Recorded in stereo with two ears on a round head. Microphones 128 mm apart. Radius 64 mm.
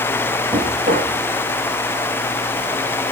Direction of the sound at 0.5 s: 50° right (ahead or behind).